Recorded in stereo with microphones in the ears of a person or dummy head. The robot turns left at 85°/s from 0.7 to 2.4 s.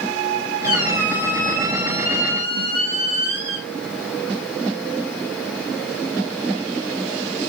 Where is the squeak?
45° right, 2 m; by 3.7 s 170° left, 2 m.